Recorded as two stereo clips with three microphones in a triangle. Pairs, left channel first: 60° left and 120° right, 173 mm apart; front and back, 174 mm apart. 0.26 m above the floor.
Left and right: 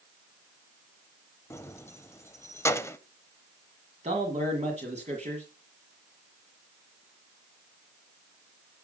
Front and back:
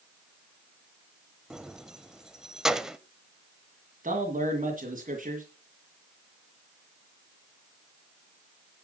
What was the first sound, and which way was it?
Keys jangling, 100° left.